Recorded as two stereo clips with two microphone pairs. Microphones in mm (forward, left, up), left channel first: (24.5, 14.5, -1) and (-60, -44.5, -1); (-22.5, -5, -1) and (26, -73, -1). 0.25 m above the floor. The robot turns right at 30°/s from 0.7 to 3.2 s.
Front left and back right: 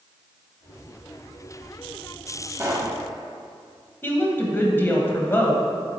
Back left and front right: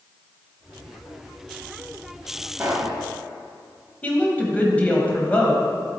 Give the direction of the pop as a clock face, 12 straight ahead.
4 o'clock.